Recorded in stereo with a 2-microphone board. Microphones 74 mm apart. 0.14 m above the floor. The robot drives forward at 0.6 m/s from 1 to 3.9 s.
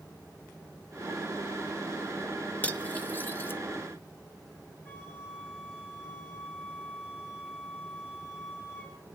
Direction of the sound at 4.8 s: 20° right (ahead or behind).